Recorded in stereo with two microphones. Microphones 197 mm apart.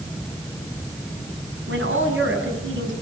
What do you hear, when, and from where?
1.7 s a woman speaking: 75° right (ahead or behind), 6 m